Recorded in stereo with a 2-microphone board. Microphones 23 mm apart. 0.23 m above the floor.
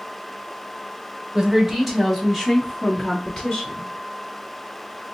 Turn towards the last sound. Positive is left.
turn(degrees=20)  # may be behind; listen again after turning